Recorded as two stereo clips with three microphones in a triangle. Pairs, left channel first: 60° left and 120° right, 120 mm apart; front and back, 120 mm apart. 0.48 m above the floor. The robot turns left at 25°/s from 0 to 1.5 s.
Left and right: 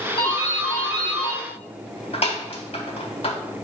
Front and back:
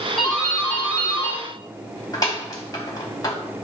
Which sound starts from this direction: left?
A doorbell, at 0.2 s.